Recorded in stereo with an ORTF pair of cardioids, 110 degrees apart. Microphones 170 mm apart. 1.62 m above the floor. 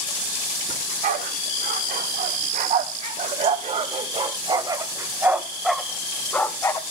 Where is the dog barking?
70° right, 6 m; by 6.8 s 20° left, 3 m.